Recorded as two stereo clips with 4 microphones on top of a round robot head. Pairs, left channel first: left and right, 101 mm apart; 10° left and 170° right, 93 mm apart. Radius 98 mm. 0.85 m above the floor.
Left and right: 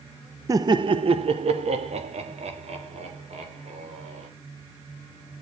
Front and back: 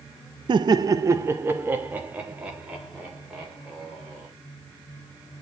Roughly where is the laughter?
Behind right.